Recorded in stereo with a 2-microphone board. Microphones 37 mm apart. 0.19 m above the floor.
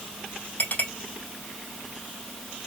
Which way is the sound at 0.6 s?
45° left (ahead or behind).